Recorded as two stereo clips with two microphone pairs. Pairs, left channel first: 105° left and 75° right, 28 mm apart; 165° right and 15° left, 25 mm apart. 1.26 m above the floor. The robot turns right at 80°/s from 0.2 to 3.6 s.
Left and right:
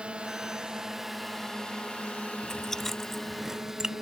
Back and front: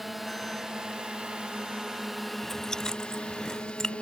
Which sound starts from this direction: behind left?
Chewing, at 2.4 s.